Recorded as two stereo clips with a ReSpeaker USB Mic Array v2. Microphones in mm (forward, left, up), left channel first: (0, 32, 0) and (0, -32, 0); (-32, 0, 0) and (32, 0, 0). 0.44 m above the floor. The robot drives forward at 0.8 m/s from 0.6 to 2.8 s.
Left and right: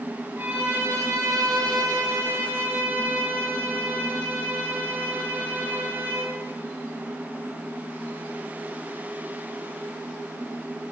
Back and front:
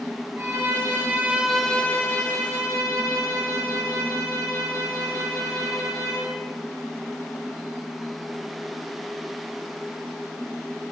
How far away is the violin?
About 1.0 m.